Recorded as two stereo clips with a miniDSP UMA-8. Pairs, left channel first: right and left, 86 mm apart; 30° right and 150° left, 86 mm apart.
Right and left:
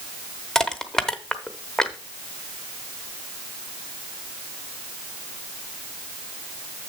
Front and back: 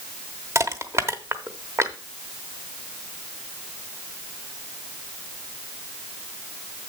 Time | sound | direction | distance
0.6 | crushing | 170° right | 0.9 m